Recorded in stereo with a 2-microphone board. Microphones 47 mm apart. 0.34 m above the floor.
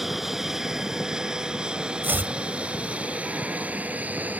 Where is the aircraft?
Centre (ahead or behind); by 4.4 s 35° right (ahead or behind).